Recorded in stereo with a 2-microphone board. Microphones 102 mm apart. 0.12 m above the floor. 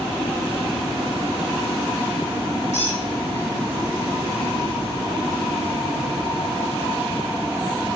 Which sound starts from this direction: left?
A squeak, at 2.7 s.